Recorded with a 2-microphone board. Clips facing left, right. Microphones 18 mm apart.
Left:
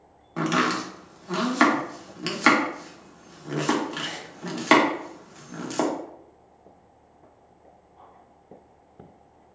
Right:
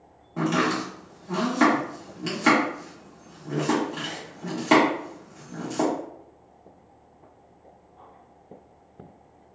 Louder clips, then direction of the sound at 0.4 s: Even; 35° left (ahead or behind).